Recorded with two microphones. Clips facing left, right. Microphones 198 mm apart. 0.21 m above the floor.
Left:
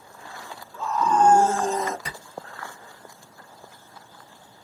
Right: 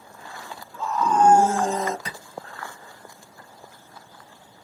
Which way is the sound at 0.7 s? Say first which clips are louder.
Even; centre (ahead or behind).